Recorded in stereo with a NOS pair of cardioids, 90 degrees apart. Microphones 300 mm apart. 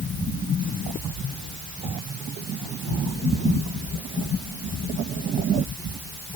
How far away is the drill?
I don't hear a drill.